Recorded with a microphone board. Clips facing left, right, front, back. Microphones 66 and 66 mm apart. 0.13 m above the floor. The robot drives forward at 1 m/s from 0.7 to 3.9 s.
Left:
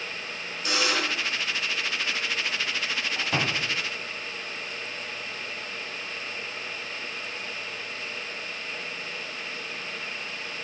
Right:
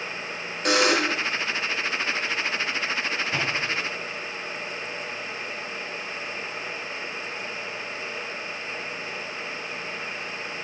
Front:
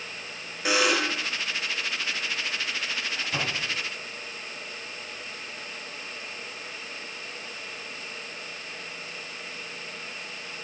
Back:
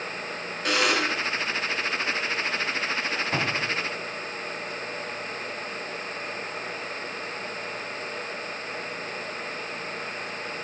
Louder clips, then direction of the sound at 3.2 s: Right 1 dB, back 3 dB; 135° left.